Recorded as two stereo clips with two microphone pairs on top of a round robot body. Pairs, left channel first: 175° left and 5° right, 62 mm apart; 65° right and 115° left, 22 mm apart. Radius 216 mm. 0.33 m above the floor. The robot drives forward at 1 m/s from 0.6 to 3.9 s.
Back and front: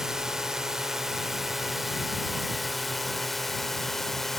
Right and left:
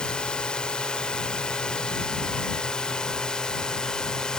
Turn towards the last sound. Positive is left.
turn(degrees=-100)